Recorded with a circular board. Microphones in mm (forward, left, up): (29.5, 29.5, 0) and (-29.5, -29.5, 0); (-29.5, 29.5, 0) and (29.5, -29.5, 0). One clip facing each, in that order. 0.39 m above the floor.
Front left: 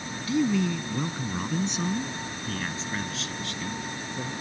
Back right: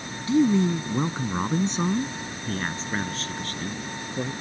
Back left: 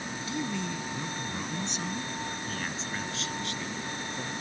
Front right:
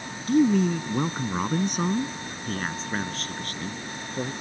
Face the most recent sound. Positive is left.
turn(degrees=-90)